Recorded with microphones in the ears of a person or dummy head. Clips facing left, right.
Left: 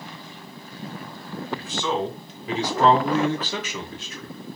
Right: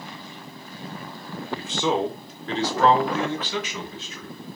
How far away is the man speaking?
About 0.9 m.